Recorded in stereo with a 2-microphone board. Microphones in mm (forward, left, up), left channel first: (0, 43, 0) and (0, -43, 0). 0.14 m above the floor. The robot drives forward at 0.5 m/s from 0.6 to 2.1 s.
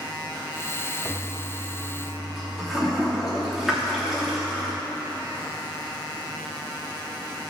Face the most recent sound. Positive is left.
turn(degrees=-5)  # may be behind; listen again after turning